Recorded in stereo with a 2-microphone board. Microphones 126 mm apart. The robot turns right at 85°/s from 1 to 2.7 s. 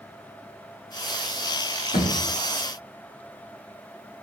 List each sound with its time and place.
1.9 s a thud: 75° left (ahead or behind), 6 m; by 2.2 s 85° left, 6 m